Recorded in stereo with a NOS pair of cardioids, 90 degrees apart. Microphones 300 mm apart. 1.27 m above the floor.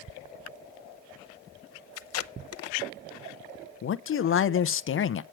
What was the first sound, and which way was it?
Tape being pulled, 55° left.